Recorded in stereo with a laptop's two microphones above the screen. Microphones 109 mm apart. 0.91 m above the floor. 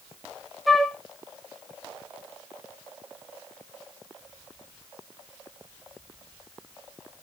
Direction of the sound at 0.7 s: Centre (ahead or behind).